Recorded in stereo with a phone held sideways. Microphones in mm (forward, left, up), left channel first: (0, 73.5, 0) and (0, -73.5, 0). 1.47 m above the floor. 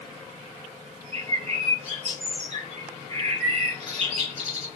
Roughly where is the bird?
Right.